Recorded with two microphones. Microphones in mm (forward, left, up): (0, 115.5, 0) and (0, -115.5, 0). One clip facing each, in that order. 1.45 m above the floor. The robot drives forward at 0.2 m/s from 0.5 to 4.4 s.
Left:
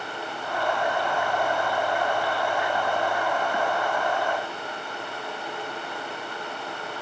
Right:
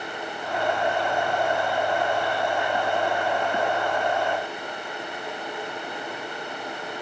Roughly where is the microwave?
No microwave in this recording.